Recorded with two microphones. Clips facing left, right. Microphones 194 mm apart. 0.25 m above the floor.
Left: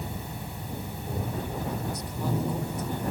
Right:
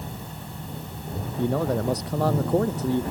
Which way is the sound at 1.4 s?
70° right (ahead or behind).